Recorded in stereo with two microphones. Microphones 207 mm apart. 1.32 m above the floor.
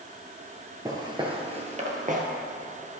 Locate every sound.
0.8 s footsteps: 20° right (ahead or behind), 1.3 m; by 2.2 s 40° right (ahead or behind), 1.7 m